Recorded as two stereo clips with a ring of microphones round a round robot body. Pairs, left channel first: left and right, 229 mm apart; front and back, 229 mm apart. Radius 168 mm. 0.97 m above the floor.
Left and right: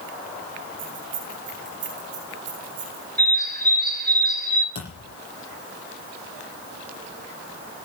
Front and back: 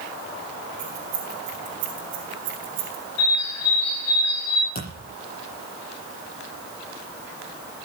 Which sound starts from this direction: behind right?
Keys jangling, at 0.8 s.